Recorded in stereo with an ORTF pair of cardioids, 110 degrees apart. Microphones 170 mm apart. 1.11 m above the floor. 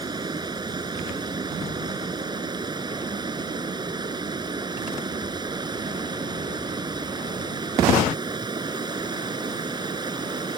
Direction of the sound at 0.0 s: 25° right.